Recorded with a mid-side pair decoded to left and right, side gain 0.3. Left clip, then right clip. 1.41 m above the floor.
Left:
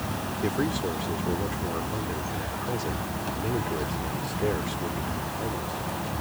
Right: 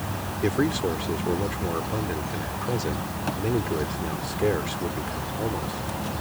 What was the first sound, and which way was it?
A man speaking, 40° right.